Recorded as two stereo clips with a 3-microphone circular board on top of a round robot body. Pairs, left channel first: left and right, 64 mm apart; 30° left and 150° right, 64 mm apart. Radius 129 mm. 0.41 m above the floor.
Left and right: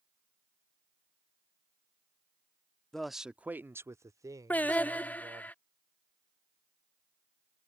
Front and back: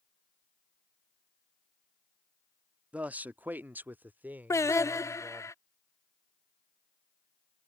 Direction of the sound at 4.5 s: 35° left.